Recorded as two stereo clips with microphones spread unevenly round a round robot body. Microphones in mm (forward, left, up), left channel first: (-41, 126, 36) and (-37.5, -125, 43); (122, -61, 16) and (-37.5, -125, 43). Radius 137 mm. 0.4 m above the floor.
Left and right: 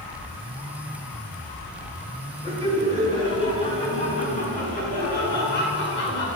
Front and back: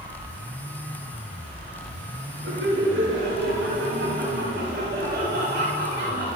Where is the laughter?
170° left, 5 m; by 6.3 s 135° left, 5 m.